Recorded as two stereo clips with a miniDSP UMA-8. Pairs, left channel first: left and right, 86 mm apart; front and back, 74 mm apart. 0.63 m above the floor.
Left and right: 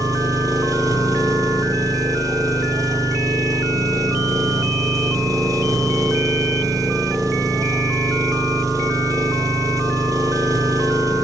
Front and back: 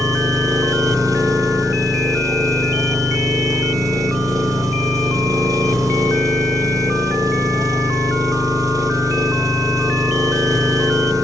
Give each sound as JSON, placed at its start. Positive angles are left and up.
{"t": 0.0, "sound": "an engine running", "azimuth_deg": -140, "distance_m": 3.5}